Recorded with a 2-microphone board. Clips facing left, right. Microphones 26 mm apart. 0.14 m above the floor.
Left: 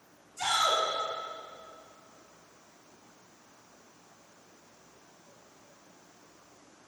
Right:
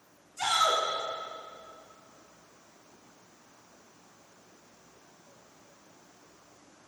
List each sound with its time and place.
0.4 s a shout: 15° right (ahead or behind), 1.3 m